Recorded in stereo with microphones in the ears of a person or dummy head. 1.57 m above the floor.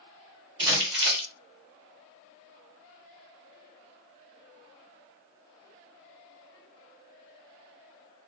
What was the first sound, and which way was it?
Crumpling, 65° right (ahead or behind).